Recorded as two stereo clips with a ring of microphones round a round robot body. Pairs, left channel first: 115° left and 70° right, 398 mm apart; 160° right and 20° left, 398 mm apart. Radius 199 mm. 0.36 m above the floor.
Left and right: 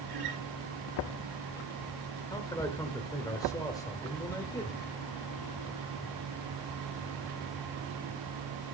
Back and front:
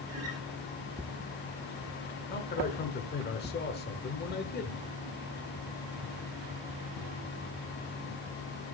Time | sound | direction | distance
0.1 | a guitar | 30° right | 3.5 m
2.3 | a man speaking | straight behind | 1.0 m